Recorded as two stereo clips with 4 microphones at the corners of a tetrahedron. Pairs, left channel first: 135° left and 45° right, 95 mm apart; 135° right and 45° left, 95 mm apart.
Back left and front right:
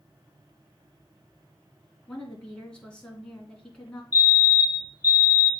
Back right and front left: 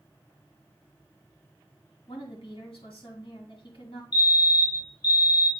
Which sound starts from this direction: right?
A fire alarm, at 4.1 s.